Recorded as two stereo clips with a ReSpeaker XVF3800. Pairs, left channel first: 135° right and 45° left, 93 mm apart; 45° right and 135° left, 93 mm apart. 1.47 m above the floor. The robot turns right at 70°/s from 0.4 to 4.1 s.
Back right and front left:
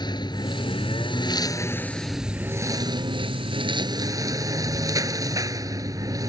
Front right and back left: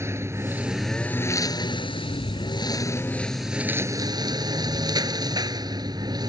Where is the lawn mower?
165° right; by 6.3 s 95° left.